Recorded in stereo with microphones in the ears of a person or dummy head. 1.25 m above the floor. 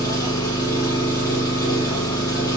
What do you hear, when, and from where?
0.0 s an engine running: 20° left (ahead or behind), 0.9 m